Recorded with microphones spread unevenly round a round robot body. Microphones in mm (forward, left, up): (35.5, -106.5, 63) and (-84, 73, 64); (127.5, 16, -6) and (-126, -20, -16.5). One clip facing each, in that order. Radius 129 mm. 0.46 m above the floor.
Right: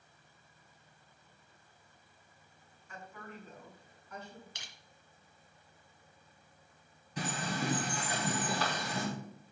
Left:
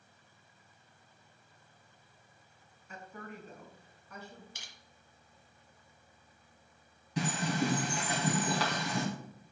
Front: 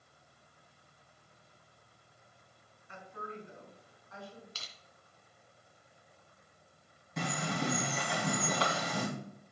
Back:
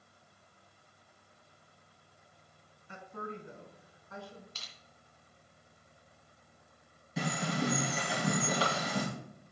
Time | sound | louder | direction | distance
2.9 | a woman speaking | left 2 dB, back 3 dB | straight behind | 4 m
4.5 | crushing | even, front 1 dB | 20° right | 2.5 m
7.2 | a bird | left 4 dB, back 2 dB | 105° left | 3.5 m